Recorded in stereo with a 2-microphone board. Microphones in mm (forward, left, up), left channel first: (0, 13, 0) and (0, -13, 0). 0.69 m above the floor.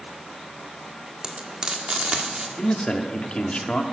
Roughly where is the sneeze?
I don't hear a sneeze.